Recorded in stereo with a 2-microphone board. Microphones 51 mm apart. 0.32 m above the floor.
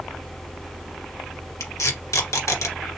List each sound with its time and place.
1.6 s tape being pulled: 75° left (ahead or behind), 1.4 m